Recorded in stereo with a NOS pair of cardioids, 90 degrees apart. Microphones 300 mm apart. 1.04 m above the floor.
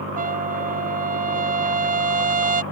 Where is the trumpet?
25° right.